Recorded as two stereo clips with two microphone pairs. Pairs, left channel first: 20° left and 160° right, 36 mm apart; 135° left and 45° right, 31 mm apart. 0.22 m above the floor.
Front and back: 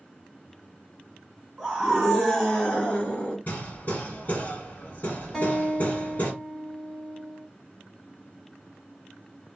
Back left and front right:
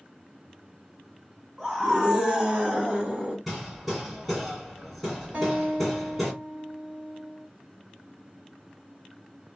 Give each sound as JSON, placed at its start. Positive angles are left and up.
{"t": 1.6, "sound": "a scream", "azimuth_deg": -95, "distance_m": 1.2}
{"t": 3.5, "sound": "hammering", "azimuth_deg": 45, "distance_m": 1.6}
{"t": 5.3, "sound": "a guitar", "azimuth_deg": -60, "distance_m": 1.2}